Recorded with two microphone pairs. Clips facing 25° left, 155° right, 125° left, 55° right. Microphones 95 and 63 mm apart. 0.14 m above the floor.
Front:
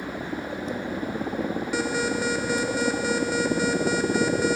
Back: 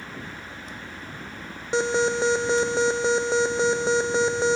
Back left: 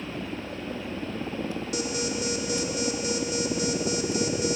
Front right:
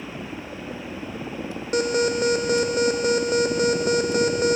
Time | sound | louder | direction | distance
0.0 | a helicopter | front 7 dB, even | 35° left | ?
1.7 | an alarm | back 6 dB, front right 11 dB | 90° right | ?